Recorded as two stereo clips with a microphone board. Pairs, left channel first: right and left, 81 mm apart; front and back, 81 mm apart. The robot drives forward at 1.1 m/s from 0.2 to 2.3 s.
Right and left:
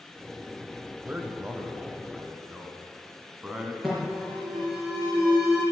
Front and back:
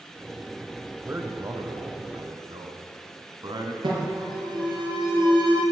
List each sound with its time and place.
1.1 s a man speaking: 140° left, 1.1 m; by 3.7 s 165° left, 2 m
3.8 s an alarm: straight behind, 5 m